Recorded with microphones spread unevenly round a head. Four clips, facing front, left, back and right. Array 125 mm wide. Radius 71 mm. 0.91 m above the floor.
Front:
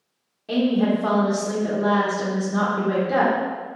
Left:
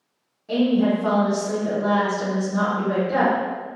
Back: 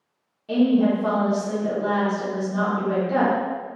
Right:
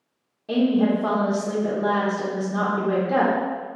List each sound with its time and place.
0.5 s a woman speaking: 55° right, 0.8 m